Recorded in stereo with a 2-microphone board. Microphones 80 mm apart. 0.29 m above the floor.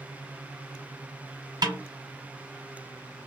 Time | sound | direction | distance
1.6 | a snare drum | 60° right (ahead or behind) | 1.1 m